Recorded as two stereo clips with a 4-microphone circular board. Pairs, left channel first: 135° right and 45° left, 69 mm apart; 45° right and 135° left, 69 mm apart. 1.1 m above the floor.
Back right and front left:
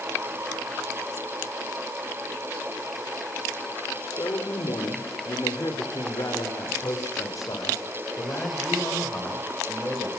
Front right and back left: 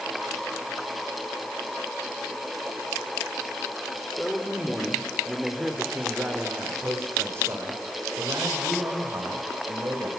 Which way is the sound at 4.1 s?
125° right.